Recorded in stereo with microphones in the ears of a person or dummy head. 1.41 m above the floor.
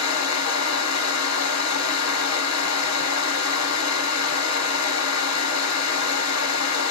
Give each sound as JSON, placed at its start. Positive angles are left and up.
{"t": 0.0, "sound": "a fan", "side_deg": 80, "distance_m": 1.0}